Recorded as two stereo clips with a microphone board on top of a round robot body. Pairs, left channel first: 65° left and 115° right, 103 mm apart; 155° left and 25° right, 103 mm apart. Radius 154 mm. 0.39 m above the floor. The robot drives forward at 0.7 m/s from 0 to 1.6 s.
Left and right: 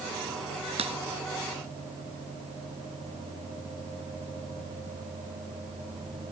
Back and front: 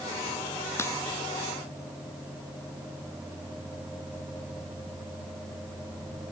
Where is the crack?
135° right.